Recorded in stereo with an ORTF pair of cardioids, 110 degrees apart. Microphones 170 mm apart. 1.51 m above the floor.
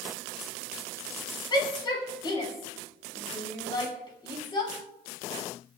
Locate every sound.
1.5 s a shout: 30° left, 5.5 m